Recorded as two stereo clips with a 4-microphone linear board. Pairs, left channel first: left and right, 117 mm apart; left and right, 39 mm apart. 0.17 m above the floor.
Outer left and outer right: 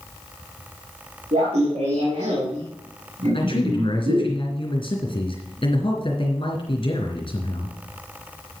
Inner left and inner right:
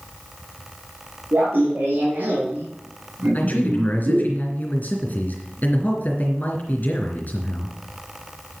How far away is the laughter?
About 4 m.